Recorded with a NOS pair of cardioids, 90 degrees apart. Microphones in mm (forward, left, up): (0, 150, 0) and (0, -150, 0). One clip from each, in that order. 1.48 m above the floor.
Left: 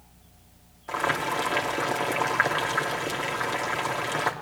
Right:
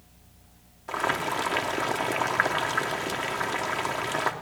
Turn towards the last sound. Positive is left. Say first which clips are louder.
# left 1 dB
turn(degrees=-5)